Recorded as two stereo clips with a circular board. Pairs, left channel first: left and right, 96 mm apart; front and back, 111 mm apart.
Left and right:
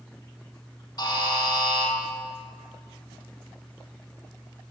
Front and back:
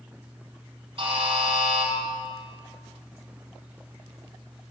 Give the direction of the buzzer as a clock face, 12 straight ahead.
7 o'clock.